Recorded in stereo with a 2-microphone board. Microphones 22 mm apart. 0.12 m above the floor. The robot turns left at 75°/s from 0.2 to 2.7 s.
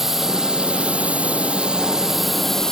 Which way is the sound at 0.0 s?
20° right.